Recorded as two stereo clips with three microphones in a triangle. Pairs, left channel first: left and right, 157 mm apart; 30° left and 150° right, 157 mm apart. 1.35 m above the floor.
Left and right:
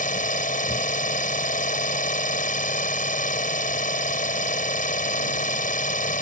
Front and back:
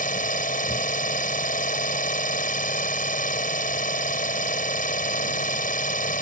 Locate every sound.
0.0 s an engine running: 60° left